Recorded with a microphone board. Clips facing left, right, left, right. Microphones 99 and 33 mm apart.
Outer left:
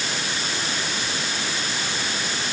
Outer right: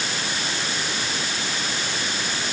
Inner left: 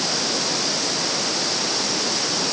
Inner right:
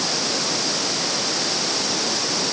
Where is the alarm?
No alarm in this recording.